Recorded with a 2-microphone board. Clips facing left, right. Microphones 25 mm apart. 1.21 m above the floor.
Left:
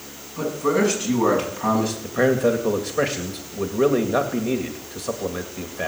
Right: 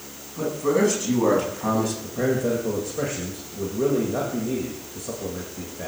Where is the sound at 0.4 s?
20° left (ahead or behind), 8.5 m; by 1.9 s 25° left (ahead or behind), 7 m.